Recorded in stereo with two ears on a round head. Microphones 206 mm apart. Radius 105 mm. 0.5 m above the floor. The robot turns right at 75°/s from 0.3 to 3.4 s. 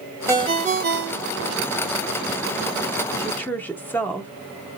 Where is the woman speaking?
15° left (ahead or behind), 0.8 m; by 4.3 s 10° left (ahead or behind), 0.8 m.